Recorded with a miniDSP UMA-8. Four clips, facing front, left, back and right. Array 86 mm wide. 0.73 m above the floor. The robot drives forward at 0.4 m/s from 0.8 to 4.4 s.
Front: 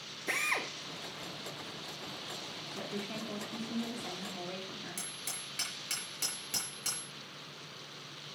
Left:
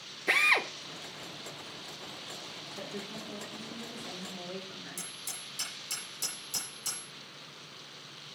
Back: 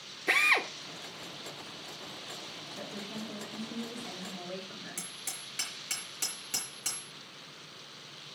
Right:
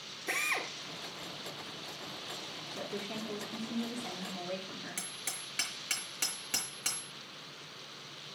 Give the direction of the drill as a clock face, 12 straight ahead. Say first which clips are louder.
Left 7 dB, back 7 dB; 8 o'clock.